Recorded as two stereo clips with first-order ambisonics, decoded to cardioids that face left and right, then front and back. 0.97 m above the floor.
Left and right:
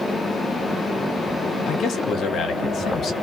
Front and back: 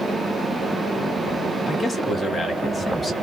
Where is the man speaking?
85° left, 0.8 m.